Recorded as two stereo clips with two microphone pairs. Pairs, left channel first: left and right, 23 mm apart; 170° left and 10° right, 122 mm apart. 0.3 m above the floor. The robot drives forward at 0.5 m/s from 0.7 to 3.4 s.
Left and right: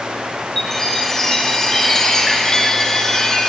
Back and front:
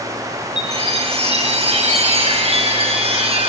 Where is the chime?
15° left, 5.5 m; by 3.5 s 20° left, 4 m.